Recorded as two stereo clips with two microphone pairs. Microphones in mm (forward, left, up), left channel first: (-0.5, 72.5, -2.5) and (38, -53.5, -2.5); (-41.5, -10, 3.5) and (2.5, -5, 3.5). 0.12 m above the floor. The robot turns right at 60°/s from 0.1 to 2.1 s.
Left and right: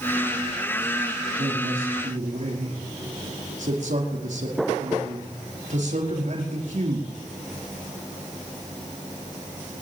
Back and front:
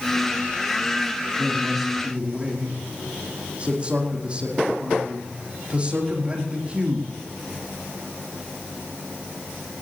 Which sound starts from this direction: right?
A man speaking, at 1.4 s.